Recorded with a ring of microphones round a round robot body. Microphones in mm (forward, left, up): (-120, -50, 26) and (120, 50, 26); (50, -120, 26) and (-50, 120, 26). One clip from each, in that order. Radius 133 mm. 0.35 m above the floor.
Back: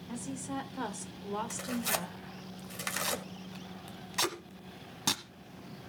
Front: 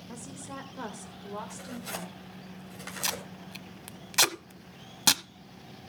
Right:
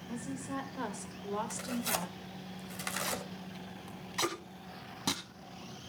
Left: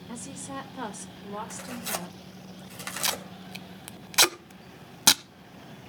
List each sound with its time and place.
0.1 s a woman speaking: 130° left, 1.4 m; by 2.5 s 115° right, 1.6 m
1.5 s tearing paper: 155° right, 2 m
3.0 s tape being pulled: 85° left, 0.8 m